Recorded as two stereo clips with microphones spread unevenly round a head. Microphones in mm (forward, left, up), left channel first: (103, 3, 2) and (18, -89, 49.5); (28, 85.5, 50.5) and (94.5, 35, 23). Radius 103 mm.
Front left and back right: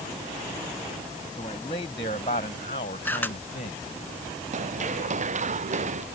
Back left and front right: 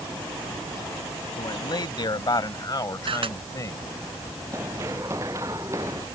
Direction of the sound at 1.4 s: 115° left.